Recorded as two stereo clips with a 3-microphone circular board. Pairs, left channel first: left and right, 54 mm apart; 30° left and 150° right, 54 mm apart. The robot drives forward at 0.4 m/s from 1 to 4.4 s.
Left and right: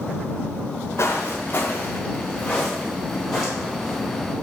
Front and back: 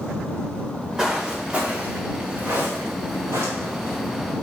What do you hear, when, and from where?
1.0 s footsteps: 130° left, 1.9 m; by 4.0 s 170° right, 3 m